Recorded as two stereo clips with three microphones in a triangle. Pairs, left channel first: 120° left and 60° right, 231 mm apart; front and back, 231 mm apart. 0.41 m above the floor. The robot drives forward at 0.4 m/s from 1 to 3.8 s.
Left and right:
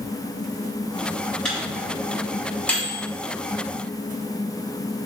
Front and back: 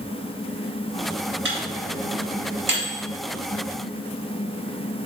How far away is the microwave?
About 3 m.